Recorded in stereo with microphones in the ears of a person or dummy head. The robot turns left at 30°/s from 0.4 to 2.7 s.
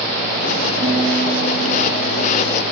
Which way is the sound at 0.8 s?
175° left.